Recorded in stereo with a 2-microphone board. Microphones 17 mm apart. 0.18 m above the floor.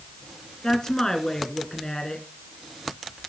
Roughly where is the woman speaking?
Left.